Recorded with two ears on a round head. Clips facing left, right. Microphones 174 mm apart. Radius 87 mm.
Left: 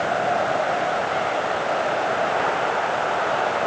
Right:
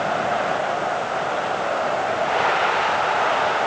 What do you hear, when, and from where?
Only background noise.